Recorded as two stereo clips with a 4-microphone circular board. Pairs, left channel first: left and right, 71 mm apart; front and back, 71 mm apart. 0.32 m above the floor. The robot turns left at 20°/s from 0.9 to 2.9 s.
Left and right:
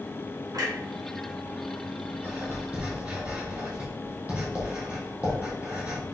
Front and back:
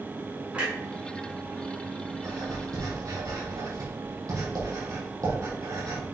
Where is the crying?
I don't hear crying.